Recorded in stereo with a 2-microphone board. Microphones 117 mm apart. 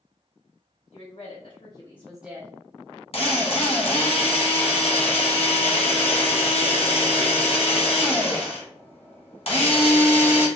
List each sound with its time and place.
0.9 s a woman speaking: 65° left (ahead or behind), 1.6 m; by 2.5 s 30° right (ahead or behind), 0.8 m
3.1 s a drill: 55° left (ahead or behind), 0.9 m